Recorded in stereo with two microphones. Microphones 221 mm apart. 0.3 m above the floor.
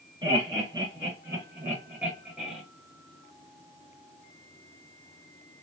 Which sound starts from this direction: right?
Laughter, at 0.2 s.